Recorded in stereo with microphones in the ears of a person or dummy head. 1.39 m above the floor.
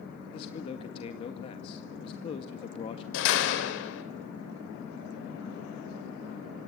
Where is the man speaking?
35° left (ahead or behind), 1.9 m.